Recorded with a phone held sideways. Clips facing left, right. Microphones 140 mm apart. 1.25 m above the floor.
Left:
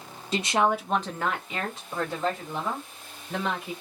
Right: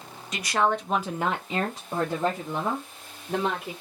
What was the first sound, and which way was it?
A woman speaking, 30° left (ahead or behind).